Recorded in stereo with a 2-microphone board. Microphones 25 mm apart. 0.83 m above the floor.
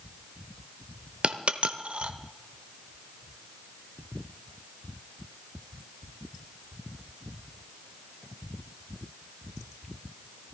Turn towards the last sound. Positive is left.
turn(degrees=-50)  # may be behind; listen again after turning